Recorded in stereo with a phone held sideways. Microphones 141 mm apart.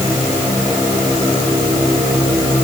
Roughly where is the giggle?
I don't hear a giggle.